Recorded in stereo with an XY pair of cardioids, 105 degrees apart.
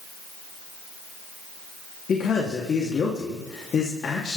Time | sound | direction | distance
2.1 | a man speaking | 50° left | 3 m